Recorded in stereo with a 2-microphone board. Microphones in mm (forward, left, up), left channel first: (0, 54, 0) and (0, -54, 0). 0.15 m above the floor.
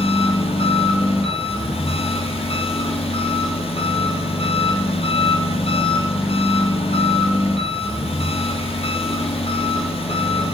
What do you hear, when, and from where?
0.0 s an engine running: 70° left (ahead or behind), 1.2 m